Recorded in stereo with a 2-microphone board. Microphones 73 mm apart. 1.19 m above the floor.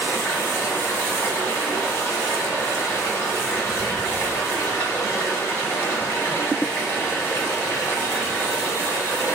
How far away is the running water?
About 1.5 m.